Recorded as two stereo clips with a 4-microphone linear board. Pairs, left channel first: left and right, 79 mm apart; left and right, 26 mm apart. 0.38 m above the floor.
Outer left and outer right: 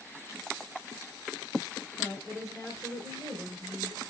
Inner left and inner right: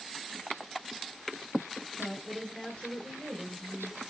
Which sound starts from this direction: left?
A woman speaking, at 2.0 s.